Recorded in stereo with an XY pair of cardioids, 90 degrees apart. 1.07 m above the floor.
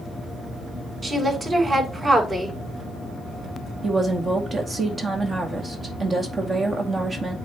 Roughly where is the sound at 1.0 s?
Ahead right.